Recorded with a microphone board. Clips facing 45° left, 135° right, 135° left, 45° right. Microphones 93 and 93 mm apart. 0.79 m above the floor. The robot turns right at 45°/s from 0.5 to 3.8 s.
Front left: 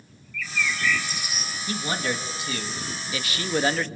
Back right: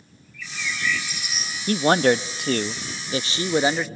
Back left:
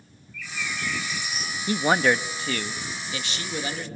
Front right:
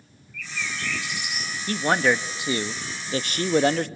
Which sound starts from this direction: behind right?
A man speaking, at 1.7 s.